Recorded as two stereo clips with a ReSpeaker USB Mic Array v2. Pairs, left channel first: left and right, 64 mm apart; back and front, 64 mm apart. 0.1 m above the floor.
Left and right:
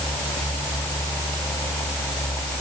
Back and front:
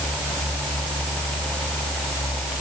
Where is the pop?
I don't hear a pop.